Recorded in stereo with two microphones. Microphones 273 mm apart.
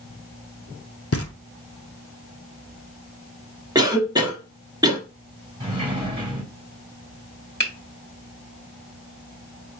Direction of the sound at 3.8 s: 15° right (ahead or behind).